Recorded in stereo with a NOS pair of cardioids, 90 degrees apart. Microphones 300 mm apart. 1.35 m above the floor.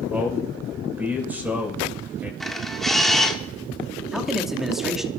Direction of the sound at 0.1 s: 5° right.